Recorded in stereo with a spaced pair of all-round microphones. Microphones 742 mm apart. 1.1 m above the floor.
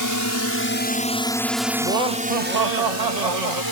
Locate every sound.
0.0 s a drone: 25° left (ahead or behind); by 3.7 s 30° right (ahead or behind)
1.8 s laughter: 65° right (ahead or behind)